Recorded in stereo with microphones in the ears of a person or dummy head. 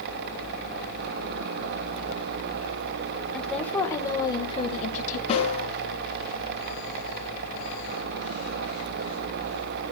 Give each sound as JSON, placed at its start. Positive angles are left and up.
{"t": 3.3, "sound": "a woman speaking", "side_deg": 5, "distance_m": 2.5}
{"t": 5.3, "sound": "a snare drum", "side_deg": 35, "distance_m": 5.0}